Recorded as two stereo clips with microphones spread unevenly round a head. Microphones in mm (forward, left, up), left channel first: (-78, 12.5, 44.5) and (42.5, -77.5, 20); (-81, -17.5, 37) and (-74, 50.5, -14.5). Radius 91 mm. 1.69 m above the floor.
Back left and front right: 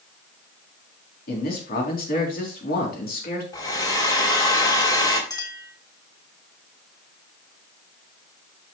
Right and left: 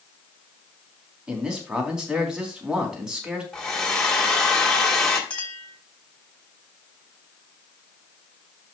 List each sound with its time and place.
1.3 s a man speaking: 170° left, 3.5 m
3.5 s a hair dryer: 155° right, 3 m
5.3 s a clink: 155° right, 3 m